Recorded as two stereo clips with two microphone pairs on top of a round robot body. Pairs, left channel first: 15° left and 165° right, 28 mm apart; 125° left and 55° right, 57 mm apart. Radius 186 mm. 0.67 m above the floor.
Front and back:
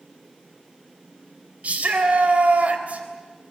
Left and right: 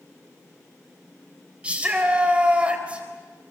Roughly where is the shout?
Behind right.